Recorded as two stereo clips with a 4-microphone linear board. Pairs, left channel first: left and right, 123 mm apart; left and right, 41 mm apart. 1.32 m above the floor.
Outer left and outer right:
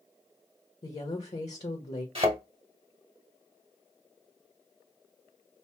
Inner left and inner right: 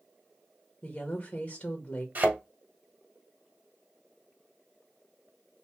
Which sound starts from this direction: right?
A thud, at 2.1 s.